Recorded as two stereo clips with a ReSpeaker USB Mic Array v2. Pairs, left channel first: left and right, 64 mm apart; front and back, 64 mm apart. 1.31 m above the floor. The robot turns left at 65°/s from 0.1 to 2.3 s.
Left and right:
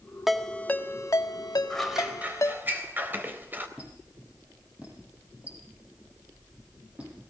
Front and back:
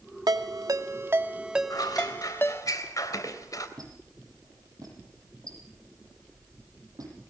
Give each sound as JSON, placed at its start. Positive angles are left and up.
{"t": 0.3, "sound": "a ringtone", "azimuth_deg": -175, "distance_m": 1.8}
{"t": 1.7, "sound": "scissors", "azimuth_deg": 10, "distance_m": 3.5}
{"t": 3.8, "sound": "a squeak", "azimuth_deg": -160, "distance_m": 9.5}